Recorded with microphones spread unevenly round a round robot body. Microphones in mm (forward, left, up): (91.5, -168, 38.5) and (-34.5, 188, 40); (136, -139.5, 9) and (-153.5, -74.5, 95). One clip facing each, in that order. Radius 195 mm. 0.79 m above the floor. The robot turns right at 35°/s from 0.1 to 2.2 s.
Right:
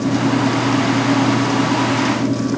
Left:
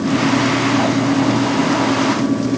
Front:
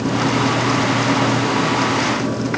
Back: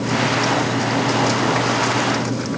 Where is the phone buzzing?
No phone buzzing in this recording.